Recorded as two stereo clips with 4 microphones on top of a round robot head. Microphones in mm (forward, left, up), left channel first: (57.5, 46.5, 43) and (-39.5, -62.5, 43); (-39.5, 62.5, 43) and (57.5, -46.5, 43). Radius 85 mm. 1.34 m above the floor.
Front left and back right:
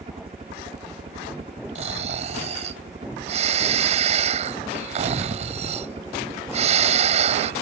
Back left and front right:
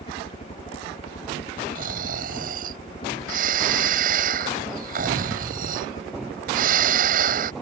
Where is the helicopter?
Straight behind.